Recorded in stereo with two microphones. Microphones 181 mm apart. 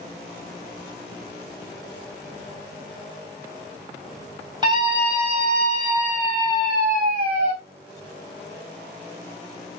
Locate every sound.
4.6 s a scream: 25° right (ahead or behind), 3 m; by 7.5 s 45° right (ahead or behind), 2.5 m